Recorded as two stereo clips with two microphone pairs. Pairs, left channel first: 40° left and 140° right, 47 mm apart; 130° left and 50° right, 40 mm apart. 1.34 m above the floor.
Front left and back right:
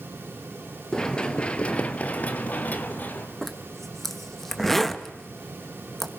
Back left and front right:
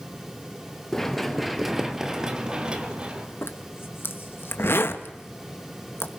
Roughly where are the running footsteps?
Left.